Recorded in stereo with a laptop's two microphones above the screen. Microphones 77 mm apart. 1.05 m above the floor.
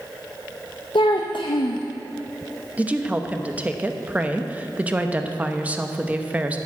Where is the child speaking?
80° left, 0.5 m.